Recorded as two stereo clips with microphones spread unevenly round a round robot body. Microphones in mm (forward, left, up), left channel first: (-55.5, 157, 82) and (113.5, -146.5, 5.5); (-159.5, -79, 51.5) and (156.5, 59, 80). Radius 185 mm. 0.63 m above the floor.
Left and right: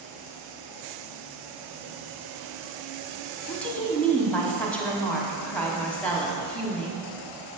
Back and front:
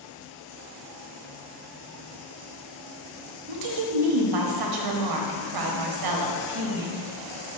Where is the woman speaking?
25° left, 1.1 m.